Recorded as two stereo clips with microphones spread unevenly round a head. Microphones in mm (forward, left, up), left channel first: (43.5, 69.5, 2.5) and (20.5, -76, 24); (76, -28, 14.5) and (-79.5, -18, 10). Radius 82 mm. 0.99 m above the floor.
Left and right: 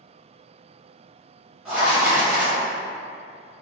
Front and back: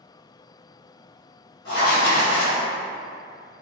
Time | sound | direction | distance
1.6 | writing | 15° right | 1.2 m